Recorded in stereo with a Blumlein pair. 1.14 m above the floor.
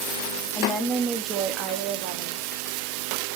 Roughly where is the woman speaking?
Ahead.